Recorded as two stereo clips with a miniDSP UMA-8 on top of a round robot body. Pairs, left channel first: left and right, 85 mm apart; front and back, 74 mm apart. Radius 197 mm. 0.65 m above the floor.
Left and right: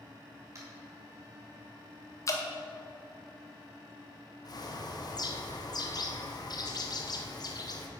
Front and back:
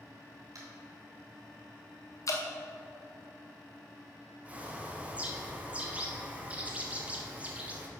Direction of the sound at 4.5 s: 110° left.